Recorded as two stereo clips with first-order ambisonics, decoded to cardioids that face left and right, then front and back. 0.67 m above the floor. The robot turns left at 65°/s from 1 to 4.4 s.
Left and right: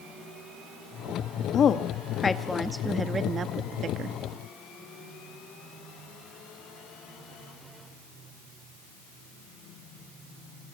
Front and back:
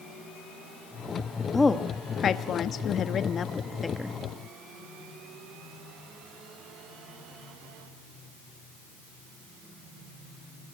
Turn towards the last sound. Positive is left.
turn(degrees=-110)